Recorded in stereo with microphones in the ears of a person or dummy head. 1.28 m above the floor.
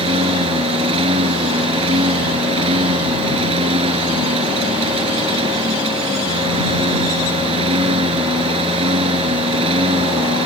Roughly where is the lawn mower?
Right.